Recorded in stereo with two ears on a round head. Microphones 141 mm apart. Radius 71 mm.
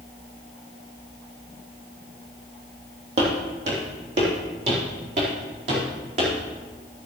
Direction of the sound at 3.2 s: 45° right (ahead or behind).